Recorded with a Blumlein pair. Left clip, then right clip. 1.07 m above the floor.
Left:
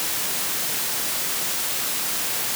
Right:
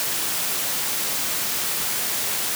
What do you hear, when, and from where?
Only background noise.